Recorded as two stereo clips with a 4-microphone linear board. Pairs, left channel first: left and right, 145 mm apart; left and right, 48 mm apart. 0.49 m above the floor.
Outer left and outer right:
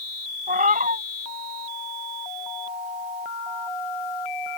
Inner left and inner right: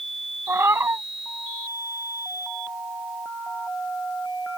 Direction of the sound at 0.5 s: 70° right (ahead or behind).